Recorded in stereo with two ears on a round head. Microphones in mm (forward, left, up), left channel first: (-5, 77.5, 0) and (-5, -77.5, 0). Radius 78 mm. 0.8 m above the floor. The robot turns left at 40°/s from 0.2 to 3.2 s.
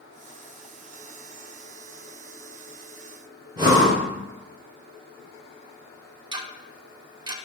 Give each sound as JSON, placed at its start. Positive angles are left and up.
{"t": 3.6, "sound": "breathing", "side_deg": -25, "distance_m": 1.2}
{"t": 6.3, "sound": "ticking", "side_deg": -25, "distance_m": 0.5}